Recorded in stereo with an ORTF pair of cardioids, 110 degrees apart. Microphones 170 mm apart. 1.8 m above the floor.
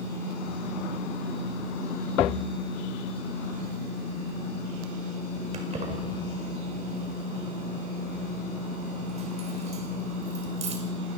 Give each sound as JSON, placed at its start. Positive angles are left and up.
{"t": 5.5, "sound": "keys jangling", "azimuth_deg": -40, "distance_m": 5.5}